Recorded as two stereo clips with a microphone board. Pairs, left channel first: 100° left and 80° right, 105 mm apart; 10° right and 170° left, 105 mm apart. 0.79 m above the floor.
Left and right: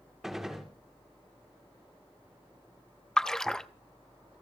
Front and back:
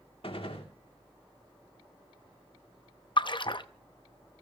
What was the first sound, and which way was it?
A gunshot, 5° left.